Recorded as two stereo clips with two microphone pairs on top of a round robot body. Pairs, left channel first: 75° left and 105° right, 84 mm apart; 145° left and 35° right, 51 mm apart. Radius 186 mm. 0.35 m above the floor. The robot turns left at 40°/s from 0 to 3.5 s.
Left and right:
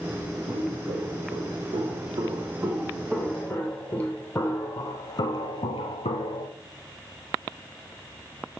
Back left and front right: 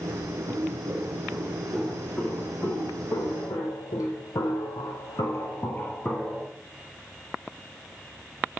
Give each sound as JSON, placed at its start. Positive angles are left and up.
{"t": 0.5, "sound": "footsteps", "azimuth_deg": -70, "distance_m": 3.0}